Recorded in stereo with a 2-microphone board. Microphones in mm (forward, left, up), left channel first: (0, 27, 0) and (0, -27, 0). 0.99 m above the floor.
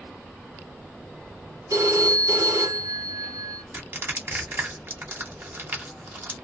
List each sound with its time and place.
1.7 s a phone ringing: 80° right, 1.1 m
3.7 s crushing: 40° right (ahead or behind), 1.3 m